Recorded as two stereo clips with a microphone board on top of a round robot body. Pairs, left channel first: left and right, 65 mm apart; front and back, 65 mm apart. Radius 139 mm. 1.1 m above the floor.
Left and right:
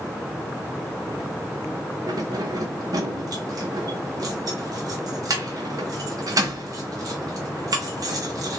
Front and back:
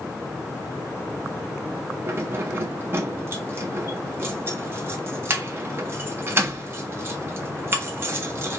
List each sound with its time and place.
2.1 s keys jangling: 125° right, 0.7 m